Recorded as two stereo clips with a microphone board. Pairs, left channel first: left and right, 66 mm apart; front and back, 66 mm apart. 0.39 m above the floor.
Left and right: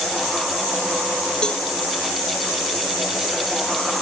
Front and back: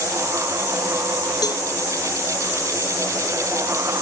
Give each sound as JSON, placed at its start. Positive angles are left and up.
{"t": 1.4, "sound": "a cowbell", "azimuth_deg": 15}